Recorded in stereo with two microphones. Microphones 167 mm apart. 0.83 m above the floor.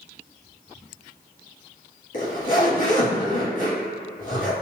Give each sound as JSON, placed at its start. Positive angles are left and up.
{"t": 2.1, "sound": "a zipper", "side_deg": 55, "distance_m": 1.6}